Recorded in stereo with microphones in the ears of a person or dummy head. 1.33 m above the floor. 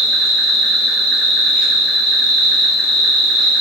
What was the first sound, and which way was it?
An insect, 5° left (ahead or behind).